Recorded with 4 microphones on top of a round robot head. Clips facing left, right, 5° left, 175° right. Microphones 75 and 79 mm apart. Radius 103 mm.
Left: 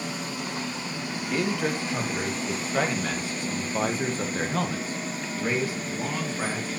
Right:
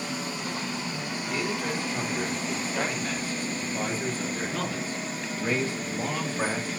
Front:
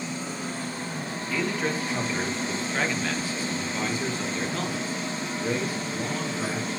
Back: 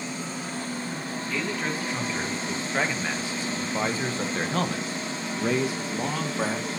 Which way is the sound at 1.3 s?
90° left.